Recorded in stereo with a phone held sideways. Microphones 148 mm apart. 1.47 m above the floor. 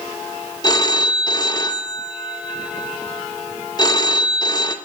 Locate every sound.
0.6 s a phone ringing: 30° left (ahead or behind), 0.8 m